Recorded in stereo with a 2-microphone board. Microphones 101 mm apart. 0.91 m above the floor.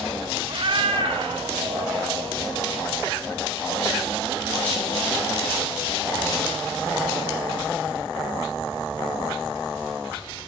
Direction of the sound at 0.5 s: 50° right (ahead or behind).